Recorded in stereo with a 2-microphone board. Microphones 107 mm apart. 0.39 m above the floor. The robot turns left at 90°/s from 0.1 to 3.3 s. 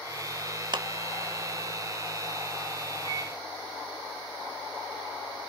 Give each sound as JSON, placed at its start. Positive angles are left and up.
{"t": 0.7, "sound": "a clap", "side_deg": -45, "distance_m": 0.9}
{"t": 3.0, "sound": "a microwave", "side_deg": -60, "distance_m": 3.5}